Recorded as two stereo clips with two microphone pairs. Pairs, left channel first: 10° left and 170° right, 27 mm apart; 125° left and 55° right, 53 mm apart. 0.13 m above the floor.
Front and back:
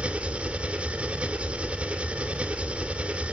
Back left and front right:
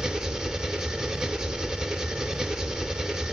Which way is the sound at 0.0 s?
125° right.